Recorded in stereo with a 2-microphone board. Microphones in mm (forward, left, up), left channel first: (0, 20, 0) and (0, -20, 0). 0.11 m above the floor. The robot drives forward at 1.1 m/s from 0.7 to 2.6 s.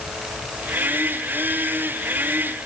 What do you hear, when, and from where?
Only background noise.